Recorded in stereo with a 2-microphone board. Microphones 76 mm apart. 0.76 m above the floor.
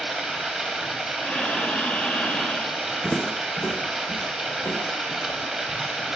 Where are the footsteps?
Centre (ahead or behind), 2 m; by 5.8 s 60° left (ahead or behind), 4.5 m.